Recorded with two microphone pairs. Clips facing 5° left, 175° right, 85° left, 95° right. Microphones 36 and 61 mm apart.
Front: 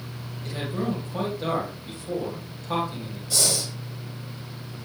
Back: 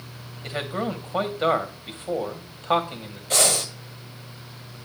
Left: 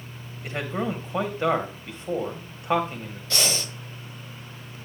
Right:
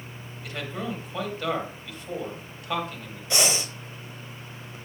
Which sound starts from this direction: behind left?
A man speaking, at 0.4 s.